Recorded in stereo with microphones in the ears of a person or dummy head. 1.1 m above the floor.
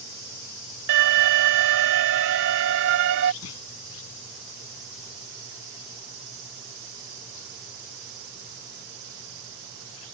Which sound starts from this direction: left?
A clunk, at 3.4 s.